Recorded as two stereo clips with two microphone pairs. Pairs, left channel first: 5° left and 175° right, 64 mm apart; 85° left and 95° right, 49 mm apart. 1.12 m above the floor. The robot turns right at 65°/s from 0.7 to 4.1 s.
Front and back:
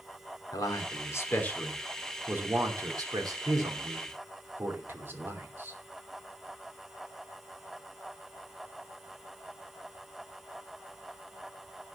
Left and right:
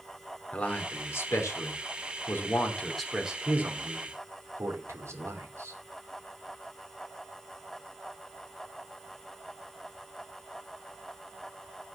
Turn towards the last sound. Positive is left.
turn(degrees=-120)